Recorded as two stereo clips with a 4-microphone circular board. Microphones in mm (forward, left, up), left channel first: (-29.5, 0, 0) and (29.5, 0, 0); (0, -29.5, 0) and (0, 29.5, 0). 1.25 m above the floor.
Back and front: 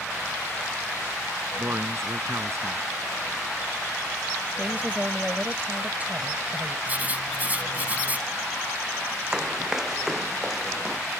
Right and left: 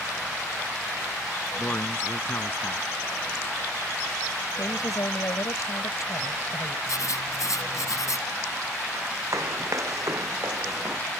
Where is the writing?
65° right.